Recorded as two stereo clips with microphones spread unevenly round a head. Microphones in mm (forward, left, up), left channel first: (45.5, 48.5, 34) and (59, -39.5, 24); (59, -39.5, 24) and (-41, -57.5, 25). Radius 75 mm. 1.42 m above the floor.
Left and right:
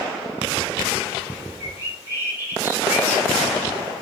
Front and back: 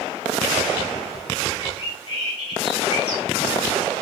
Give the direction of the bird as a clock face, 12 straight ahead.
1 o'clock.